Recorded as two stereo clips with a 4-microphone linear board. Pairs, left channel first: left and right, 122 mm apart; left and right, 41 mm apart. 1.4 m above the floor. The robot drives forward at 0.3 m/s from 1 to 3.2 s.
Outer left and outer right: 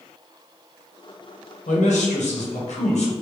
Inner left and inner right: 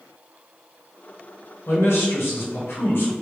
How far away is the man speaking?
About 1.1 m.